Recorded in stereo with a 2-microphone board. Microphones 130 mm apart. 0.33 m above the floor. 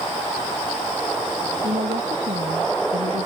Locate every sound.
1.6 s a woman speaking: 80° right; by 3.2 s 85° right